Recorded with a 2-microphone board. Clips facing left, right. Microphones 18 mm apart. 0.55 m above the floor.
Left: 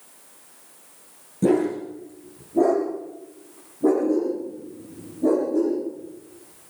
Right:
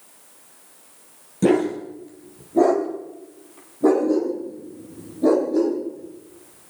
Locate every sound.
1.4 s a dog barking: 55° right (ahead or behind), 5.5 m; by 6.7 s 80° right, 9.5 m